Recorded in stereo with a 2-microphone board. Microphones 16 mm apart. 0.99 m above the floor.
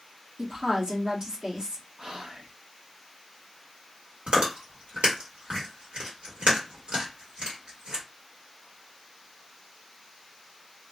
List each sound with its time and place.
0.4 s a woman speaking: 40° right (ahead or behind), 1.0 m
2.0 s whispering: 50° right (ahead or behind), 0.8 m
4.3 s chewing: 70° right (ahead or behind), 1.5 m